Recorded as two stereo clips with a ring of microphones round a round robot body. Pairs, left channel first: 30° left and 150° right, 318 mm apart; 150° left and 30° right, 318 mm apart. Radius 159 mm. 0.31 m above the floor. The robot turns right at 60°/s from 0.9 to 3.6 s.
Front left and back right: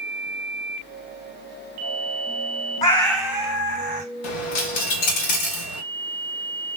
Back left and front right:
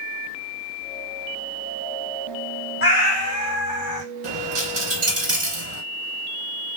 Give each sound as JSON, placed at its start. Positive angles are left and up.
{"t": 2.8, "sound": "a cat meowing", "azimuth_deg": 100, "distance_m": 0.8}
{"t": 4.2, "sound": "a dropped coin", "azimuth_deg": 35, "distance_m": 1.0}